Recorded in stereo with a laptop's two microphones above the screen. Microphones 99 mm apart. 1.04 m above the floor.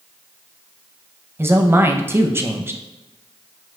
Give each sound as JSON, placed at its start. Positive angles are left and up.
{"t": 1.4, "sound": "a man speaking", "side_deg": -25, "distance_m": 0.6}